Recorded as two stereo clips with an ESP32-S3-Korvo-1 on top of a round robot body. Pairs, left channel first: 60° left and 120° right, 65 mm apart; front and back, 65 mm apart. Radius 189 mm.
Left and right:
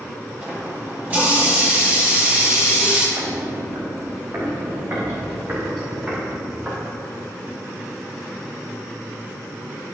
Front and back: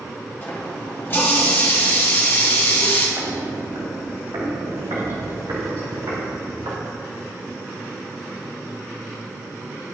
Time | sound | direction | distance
0.4 | a running tap | 55° right | 3 m
3.2 | footsteps | 130° right | 1.7 m